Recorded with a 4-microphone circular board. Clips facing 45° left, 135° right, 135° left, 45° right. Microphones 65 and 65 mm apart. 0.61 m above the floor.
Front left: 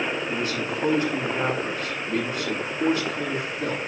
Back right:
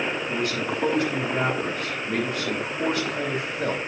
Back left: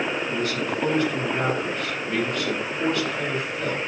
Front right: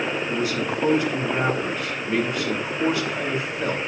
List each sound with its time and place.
0.3 s a man speaking: 125° right, 4 m